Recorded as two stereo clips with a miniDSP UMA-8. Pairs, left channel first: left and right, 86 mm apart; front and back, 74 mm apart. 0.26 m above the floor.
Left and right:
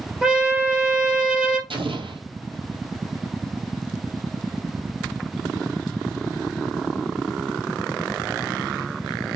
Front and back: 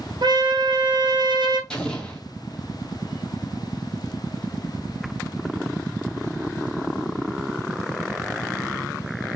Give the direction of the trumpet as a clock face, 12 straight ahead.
6 o'clock.